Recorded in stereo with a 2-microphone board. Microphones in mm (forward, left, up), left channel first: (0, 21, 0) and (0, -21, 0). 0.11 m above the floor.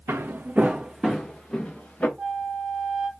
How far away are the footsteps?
About 0.6 m.